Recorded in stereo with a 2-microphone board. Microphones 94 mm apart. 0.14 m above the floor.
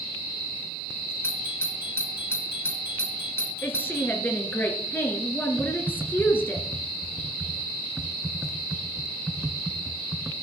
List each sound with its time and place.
1.2 s a doorbell: 25° left (ahead or behind), 1.7 m
3.6 s a woman speaking: 20° left (ahead or behind), 2 m
5.6 s typing on a keyboard: 5° right (ahead or behind), 0.8 m